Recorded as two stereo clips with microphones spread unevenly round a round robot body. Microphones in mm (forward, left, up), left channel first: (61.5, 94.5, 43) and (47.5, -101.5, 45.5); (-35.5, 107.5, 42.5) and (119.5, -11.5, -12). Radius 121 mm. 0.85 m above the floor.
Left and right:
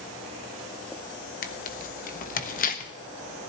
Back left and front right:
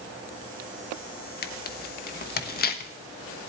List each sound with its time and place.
1.4 s tearing paper: 105° left, 1.1 m